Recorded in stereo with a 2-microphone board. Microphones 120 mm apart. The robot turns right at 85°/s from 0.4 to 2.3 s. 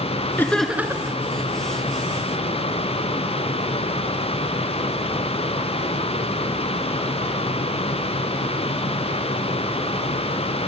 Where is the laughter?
160° left, 3 m; by 1.2 s 135° right, 3 m.